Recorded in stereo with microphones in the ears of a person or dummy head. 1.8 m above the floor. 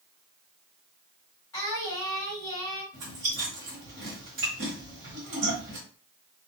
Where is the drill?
I don't hear a drill.